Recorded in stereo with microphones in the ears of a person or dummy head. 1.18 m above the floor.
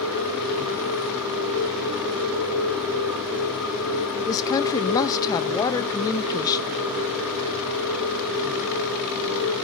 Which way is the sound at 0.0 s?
5° right (ahead or behind).